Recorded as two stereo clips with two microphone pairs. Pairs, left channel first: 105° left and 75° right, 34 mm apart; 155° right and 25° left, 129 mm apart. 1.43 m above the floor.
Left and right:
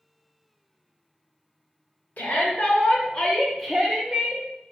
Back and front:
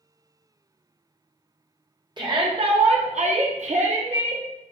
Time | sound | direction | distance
2.2 | a shout | 80° left | 1.3 m